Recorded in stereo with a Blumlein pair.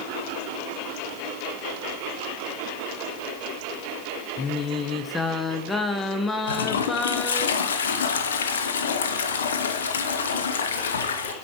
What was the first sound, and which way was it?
Singing, 10° left.